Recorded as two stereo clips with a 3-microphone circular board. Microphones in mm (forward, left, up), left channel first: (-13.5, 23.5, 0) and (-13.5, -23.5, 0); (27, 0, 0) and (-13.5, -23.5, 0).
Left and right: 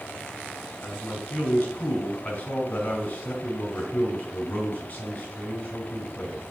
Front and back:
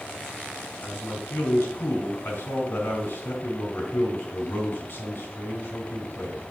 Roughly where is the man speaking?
Ahead left.